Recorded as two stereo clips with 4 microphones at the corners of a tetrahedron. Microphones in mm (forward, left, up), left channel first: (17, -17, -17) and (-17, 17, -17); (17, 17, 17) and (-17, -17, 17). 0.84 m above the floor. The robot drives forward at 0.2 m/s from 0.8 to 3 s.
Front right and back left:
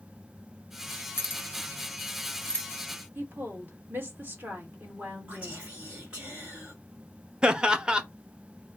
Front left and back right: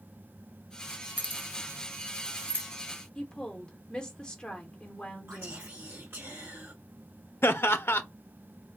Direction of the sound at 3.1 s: 110° left.